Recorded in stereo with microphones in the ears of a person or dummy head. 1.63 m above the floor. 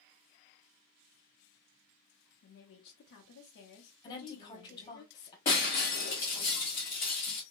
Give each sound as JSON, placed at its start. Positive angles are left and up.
{"t": 2.4, "sound": "a woman speaking", "side_deg": 65, "distance_m": 0.7}
{"t": 4.0, "sound": "a woman speaking", "side_deg": 25, "distance_m": 1.3}
{"t": 5.5, "sound": "breaking glass", "side_deg": 20, "distance_m": 1.3}